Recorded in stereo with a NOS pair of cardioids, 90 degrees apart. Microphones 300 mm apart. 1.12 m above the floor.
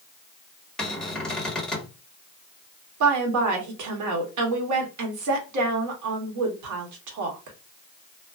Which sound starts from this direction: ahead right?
A woman speaking, at 3.0 s.